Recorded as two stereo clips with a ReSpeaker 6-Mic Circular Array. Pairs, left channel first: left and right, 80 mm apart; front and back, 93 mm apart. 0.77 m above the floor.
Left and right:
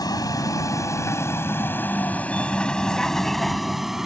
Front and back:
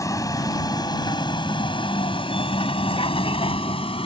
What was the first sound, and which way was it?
A vehicle, 55° left.